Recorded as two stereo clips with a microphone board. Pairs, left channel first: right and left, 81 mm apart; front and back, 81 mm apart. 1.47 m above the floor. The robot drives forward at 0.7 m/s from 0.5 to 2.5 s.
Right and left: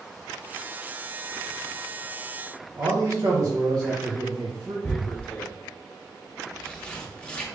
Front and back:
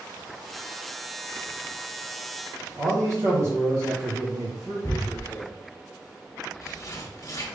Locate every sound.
2.8 s a man speaking: 130° left, 1.0 m
4.8 s tearing paper: 15° right, 0.7 m